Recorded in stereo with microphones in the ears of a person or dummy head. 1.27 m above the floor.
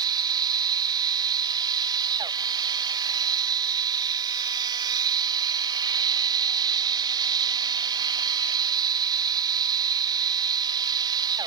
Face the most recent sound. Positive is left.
turn(degrees=-20)  # may be behind; listen again after turning